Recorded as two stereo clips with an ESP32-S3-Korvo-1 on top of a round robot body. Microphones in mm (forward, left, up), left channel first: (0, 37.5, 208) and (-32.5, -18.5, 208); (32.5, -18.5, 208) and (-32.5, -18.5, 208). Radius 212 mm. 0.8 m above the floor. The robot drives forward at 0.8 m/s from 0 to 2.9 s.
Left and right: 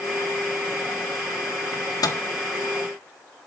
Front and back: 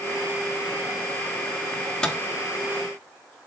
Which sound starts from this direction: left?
A microwave, at 1.7 s.